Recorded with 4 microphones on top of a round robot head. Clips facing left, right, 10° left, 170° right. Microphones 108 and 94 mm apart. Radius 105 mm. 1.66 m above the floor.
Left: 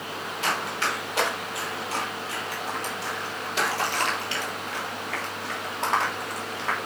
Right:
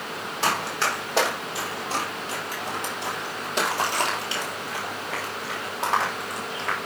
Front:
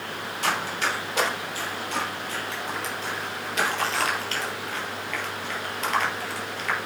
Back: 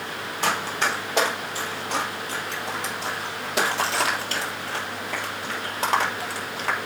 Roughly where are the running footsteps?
Behind right.